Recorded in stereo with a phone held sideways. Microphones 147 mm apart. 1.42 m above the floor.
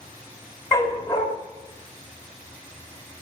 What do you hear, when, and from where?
0.7 s a dog barking: 15° left (ahead or behind), 2.5 m